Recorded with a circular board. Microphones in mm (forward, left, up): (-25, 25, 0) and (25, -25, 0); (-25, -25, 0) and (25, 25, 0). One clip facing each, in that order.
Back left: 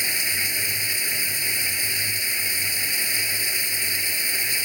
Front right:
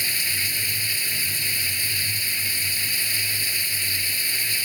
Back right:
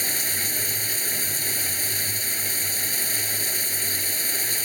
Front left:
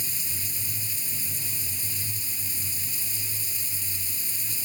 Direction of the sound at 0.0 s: 155° right.